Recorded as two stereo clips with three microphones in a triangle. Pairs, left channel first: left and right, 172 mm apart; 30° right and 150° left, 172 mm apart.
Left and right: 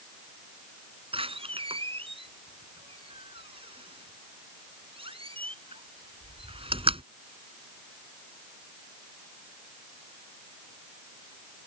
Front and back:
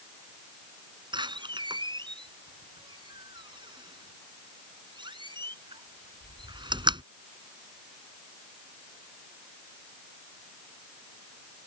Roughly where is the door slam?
Behind right.